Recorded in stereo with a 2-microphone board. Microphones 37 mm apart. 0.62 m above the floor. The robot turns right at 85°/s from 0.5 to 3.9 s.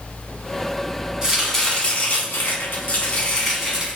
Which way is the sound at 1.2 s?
20° right.